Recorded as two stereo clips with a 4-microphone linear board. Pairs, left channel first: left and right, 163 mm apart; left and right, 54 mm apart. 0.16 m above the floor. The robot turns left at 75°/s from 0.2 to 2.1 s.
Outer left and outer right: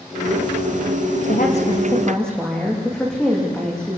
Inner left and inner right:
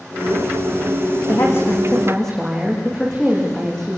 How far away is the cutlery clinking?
I don't hear cutlery clinking.